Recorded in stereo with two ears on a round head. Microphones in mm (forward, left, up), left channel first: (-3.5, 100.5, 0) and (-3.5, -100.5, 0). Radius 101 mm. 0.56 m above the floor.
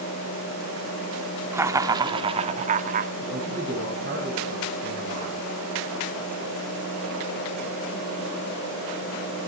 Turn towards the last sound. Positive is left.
turn(degrees=-35)  # may be behind; listen again after turning